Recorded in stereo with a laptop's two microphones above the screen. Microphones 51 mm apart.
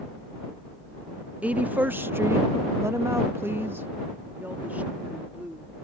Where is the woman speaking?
25° right (ahead or behind); by 5.7 s 30° right (ahead or behind).